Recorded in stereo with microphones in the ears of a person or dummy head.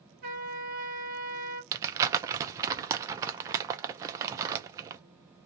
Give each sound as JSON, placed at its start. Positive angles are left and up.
{"t": 0.2, "sound": "a trumpet", "side_deg": -50, "distance_m": 1.3}
{"t": 1.7, "sound": "crumpling", "side_deg": -25, "distance_m": 0.6}